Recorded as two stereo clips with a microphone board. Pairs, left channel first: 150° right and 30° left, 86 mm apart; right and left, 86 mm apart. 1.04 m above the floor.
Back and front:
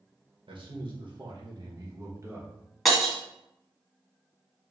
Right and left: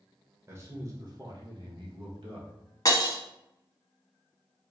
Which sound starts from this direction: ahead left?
A man speaking, at 0.5 s.